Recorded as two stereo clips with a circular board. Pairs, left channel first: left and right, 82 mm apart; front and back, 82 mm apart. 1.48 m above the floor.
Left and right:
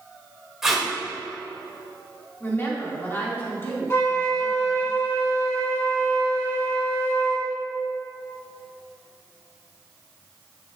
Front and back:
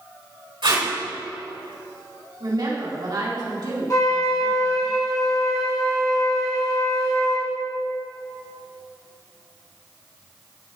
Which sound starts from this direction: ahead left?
A flute, at 3.9 s.